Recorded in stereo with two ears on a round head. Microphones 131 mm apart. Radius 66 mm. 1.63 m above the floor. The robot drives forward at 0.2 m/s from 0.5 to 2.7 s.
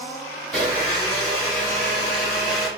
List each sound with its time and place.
0.5 s a blender: centre (ahead or behind), 1.3 m